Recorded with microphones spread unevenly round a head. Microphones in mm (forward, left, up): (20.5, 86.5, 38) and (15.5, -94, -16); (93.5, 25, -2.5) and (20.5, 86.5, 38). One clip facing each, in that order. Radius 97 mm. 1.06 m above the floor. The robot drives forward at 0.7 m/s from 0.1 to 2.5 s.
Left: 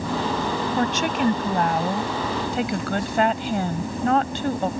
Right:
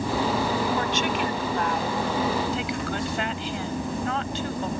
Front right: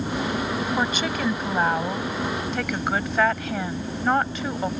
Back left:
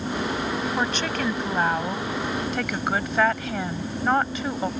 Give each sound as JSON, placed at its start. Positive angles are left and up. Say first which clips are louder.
{"t": 0.8, "sound": "a woman speaking", "louder": "left 3 dB, front right 1 dB", "azimuth_deg": 45}